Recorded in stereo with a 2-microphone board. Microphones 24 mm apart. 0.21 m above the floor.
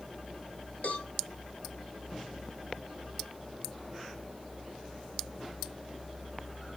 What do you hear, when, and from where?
0.8 s a cowbell: 75° left (ahead or behind), 2.5 m